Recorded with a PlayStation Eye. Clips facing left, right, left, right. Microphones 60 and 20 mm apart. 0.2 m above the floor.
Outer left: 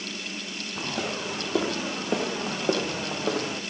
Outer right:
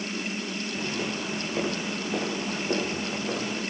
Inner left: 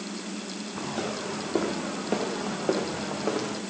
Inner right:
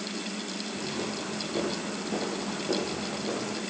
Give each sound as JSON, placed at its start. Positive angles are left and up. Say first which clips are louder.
{"t": 0.8, "sound": "footsteps", "louder": "outer left 2 dB, inner left 4 dB", "side_deg": 85, "distance_m": 7.0}